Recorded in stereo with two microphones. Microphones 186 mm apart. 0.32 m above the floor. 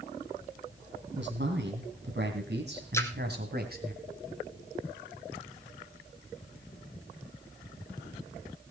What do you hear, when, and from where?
1.1 s a man speaking: 65° right (ahead or behind), 3 m; by 3.9 s 50° right (ahead or behind), 2.5 m
2.9 s a splash: 15° left (ahead or behind), 1.5 m